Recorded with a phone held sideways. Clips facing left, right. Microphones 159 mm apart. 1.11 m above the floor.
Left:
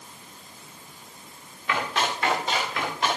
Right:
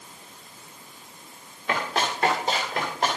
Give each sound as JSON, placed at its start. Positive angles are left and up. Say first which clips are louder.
{"t": 1.7, "sound": "running footsteps", "louder": "even", "side_deg": -50, "distance_m": 9.5}